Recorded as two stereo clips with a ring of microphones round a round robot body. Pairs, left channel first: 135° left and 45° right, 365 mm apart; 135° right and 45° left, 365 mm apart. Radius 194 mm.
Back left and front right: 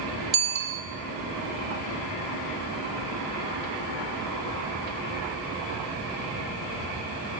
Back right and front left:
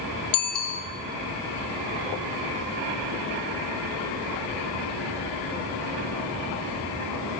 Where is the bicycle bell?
100° right, 2 m.